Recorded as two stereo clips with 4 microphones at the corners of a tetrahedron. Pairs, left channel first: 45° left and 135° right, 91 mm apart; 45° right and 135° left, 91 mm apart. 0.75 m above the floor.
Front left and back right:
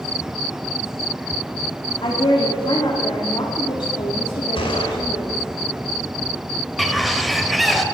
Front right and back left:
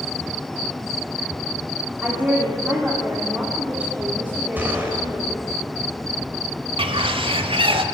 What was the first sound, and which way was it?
A woman speaking, 65° left.